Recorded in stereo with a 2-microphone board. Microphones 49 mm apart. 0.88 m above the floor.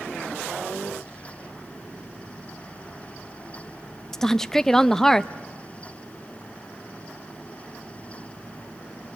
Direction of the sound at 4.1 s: 10° left (ahead or behind).